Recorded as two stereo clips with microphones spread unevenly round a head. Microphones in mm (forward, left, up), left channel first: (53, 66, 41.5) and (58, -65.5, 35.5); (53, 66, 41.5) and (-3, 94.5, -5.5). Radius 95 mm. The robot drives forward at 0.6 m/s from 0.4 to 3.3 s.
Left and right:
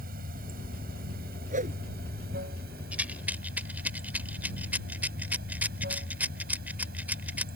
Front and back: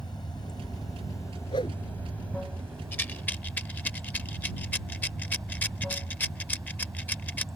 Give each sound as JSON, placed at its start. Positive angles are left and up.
{"t": 0.0, "sound": "running water", "azimuth_deg": -85}
{"t": 1.5, "sound": "a whoosh", "azimuth_deg": -65}
{"t": 2.9, "sound": "a rattle", "azimuth_deg": -5}